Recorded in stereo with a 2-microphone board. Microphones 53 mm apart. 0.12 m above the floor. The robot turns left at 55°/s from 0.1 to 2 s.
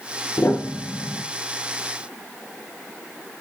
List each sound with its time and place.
0.4 s a piano: 75° left, 3 m; by 1.2 s 30° left, 3 m